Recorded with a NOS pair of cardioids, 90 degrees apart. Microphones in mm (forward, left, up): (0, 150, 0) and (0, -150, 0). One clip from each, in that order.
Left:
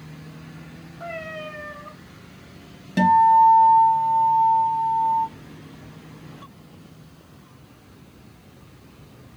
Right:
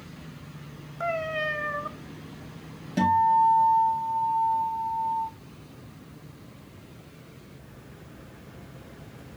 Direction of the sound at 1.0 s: 60° right.